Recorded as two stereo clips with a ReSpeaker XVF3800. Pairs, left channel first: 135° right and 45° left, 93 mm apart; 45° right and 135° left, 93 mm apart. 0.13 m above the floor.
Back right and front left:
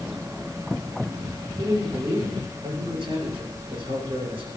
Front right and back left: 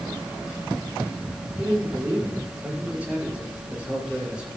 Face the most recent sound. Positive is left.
turn(degrees=55)